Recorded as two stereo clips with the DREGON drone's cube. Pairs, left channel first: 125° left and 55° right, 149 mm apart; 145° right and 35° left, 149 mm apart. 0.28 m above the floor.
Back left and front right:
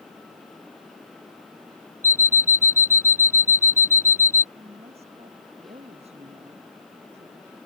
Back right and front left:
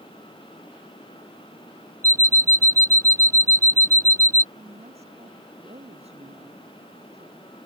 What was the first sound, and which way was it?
An alarm clock, 35° right.